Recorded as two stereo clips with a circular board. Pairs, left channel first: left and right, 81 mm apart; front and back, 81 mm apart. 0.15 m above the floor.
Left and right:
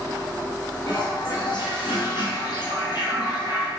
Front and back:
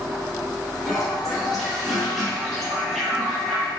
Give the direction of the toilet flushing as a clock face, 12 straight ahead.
9 o'clock.